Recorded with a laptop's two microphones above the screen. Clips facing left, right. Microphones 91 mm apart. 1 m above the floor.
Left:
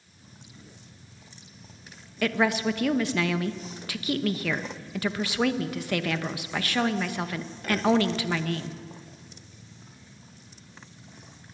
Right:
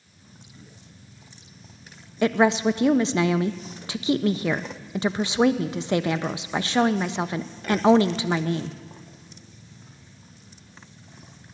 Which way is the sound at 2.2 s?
20° right (ahead or behind).